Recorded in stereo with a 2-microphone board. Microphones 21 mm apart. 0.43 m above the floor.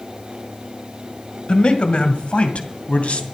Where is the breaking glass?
No breaking glass in this recording.